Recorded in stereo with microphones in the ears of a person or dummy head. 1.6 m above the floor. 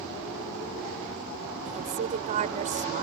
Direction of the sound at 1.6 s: 40° right (ahead or behind).